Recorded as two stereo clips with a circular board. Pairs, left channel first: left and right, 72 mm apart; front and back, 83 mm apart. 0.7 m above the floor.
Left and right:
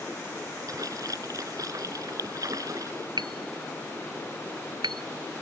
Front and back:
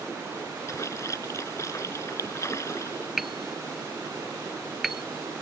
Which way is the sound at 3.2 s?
90° right.